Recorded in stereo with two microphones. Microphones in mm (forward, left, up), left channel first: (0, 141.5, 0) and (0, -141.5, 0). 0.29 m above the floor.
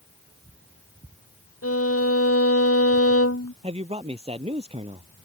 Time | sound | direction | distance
1.6 | a violin | 55° left (ahead or behind) | ?
3.6 | a man speaking | 20° right (ahead or behind) | ?